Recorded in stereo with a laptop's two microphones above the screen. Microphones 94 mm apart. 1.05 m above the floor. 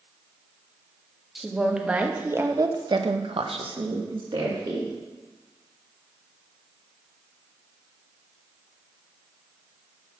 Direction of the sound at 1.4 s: Centre (ahead or behind).